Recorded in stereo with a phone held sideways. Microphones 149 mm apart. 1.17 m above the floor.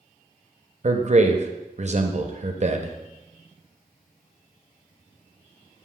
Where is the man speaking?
50° right (ahead or behind), 0.7 m.